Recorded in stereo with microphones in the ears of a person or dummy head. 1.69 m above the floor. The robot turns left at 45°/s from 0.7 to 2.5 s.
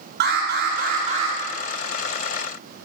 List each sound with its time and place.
0.2 s an alarm: 50° right (ahead or behind), 7 m; by 1.4 s 20° right (ahead or behind), 7 m